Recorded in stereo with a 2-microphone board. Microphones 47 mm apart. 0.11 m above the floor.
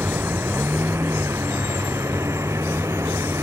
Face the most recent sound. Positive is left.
turn(degrees=-85)